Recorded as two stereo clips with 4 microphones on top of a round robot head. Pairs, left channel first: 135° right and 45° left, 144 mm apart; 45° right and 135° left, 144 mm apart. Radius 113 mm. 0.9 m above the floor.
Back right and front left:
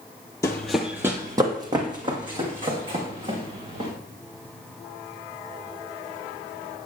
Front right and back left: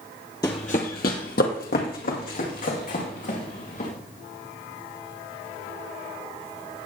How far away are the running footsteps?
About 0.9 m.